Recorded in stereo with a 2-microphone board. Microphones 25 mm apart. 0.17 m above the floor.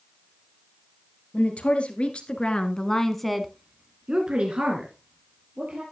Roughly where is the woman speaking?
Left.